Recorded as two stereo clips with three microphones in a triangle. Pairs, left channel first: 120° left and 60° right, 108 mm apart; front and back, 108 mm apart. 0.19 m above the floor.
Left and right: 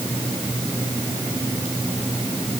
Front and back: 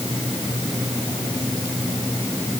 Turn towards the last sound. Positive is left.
No sound to turn to.